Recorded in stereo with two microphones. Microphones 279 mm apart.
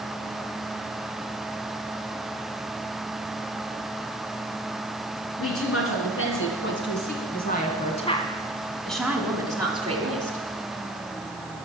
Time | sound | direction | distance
5.4 | a woman speaking | 55° left (ahead or behind) | 3 m